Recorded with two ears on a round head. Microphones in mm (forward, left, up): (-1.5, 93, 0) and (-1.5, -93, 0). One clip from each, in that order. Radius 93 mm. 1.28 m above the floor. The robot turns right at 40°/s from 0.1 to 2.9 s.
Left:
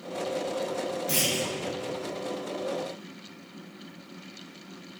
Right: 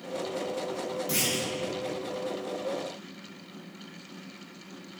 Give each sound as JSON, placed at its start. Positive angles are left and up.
{"t": 1.1, "sound": "a clunk", "side_deg": 10, "distance_m": 1.6}